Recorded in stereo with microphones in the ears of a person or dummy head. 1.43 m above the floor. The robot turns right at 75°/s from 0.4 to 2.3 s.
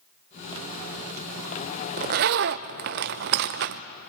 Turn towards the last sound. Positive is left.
turn(degrees=-45)  # may be behind; listen again after turning